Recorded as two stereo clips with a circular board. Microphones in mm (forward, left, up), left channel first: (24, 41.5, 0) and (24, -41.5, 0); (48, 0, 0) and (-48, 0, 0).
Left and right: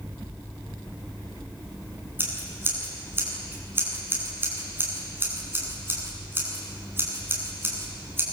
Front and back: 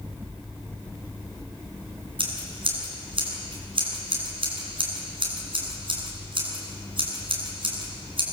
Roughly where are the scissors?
Behind right.